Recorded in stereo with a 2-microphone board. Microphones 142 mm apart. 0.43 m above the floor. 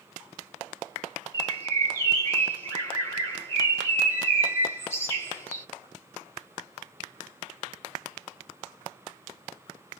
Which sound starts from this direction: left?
A bird, at 1.3 s.